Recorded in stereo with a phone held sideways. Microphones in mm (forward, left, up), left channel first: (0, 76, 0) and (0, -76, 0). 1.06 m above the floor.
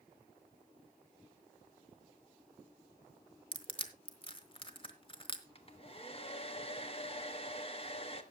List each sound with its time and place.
3.5 s crushing: 35° left (ahead or behind), 1.2 m
5.5 s a hair dryer: 40° left (ahead or behind), 1.1 m